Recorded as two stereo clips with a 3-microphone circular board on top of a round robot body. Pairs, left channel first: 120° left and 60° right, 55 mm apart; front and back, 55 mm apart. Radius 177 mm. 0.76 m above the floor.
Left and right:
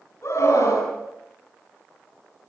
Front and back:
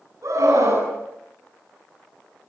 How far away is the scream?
About 9 m.